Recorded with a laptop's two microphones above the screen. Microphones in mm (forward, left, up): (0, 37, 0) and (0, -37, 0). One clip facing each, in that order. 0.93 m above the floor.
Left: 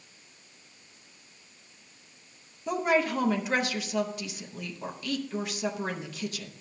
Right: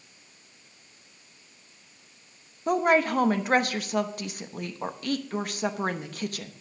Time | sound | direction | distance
2.7 | a woman speaking | 50° right (ahead or behind) | 0.9 m